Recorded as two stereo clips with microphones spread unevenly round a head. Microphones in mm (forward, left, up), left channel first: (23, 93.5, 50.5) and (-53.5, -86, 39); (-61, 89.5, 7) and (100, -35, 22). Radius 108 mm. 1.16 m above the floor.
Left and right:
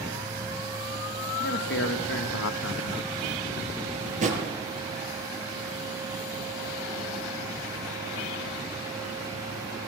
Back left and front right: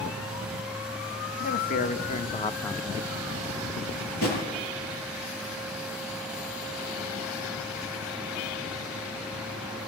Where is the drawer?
165° right, 7.5 m.